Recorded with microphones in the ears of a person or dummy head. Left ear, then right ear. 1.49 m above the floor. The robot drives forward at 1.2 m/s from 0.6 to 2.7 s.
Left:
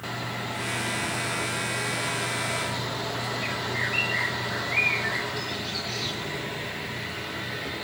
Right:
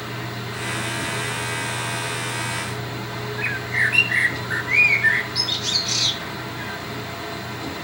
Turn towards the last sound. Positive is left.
turn(degrees=-50)  # may be behind; listen again after turning